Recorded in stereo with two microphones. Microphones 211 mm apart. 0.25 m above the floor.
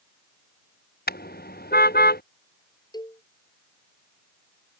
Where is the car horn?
45° left (ahead or behind).